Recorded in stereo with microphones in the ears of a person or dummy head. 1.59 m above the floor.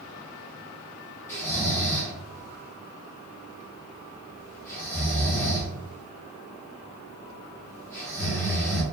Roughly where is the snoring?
Centre.